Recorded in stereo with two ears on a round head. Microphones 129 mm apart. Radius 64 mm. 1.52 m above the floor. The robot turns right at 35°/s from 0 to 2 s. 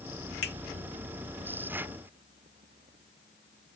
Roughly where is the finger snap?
Left.